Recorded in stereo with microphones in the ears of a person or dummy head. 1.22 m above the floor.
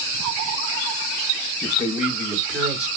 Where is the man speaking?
5° right (ahead or behind), 3 m; by 2.9 s centre (ahead or behind), 4 m.